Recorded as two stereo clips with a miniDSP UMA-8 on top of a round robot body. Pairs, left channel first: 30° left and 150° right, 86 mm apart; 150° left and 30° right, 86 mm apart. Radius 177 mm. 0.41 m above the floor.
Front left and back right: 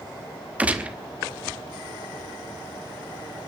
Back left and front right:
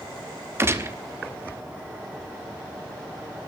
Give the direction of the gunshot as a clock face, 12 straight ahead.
3 o'clock.